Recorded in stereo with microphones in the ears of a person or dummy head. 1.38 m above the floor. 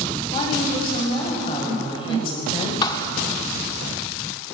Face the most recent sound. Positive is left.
turn(degrees=25)  # may be behind; listen again after turning